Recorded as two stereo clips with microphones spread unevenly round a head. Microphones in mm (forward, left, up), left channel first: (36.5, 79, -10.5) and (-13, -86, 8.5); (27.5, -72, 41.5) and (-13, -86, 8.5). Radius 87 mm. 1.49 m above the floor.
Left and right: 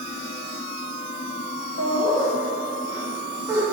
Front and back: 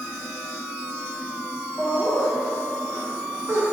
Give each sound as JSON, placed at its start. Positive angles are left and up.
{"t": 1.8, "sound": "laughter", "azimuth_deg": 100, "distance_m": 0.7}